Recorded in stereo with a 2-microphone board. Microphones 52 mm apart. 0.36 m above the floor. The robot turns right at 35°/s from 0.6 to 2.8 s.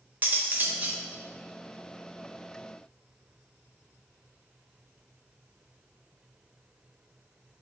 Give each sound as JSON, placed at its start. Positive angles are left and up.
{"t": 0.2, "sound": "cutlery clinking", "side_deg": -35, "distance_m": 0.6}